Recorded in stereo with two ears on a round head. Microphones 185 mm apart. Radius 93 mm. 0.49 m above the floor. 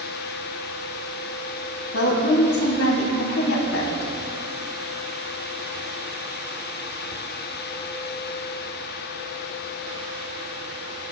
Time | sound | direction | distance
1.9 | a woman speaking | 75° left (ahead or behind) | 2.5 m